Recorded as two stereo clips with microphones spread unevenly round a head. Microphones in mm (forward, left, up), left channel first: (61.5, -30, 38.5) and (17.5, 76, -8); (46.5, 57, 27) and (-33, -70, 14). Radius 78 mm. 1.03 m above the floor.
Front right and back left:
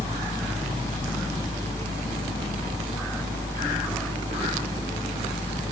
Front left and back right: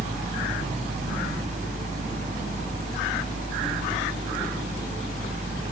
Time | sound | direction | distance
0.0 | a fan | 95° right | 0.8 m